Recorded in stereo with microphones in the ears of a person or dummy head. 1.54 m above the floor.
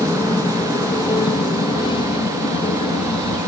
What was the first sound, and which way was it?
An aircraft, 15° left (ahead or behind).